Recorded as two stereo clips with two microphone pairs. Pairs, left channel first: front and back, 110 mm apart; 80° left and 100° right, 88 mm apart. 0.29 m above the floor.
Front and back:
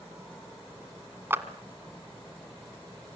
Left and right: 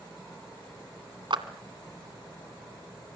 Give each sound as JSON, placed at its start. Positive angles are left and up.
{"t": 1.3, "sound": "a clap", "azimuth_deg": -110, "distance_m": 1.7}